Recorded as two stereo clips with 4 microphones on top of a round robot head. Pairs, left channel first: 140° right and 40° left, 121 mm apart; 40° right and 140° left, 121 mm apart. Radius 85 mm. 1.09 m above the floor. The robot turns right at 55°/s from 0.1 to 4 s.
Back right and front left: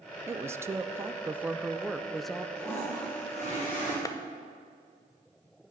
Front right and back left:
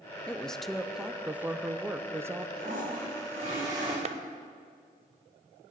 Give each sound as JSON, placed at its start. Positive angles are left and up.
{"t": 0.3, "sound": "a woman speaking", "azimuth_deg": 25, "distance_m": 0.7}
{"t": 2.5, "sound": "a toilet flushing", "azimuth_deg": 130, "distance_m": 6.0}
{"t": 4.0, "sound": "a clap", "azimuth_deg": 160, "distance_m": 0.7}